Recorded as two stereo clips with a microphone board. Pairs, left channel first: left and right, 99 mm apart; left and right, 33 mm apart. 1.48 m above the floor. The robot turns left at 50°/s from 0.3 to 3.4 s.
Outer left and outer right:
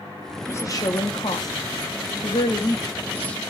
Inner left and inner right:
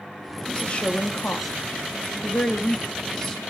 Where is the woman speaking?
25° left (ahead or behind), 2.5 m; by 3.4 s 5° left (ahead or behind), 2.5 m.